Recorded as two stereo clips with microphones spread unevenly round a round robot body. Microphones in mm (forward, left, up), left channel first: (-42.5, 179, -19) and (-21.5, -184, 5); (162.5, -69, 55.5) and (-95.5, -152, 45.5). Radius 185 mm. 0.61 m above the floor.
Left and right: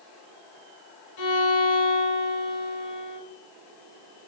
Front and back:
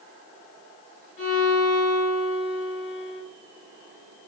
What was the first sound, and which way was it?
A violin, 75° left.